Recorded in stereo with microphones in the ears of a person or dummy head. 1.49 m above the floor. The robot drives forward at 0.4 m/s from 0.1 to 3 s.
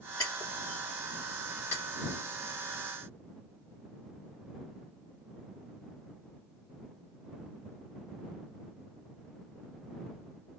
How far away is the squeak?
I don't hear a squeak.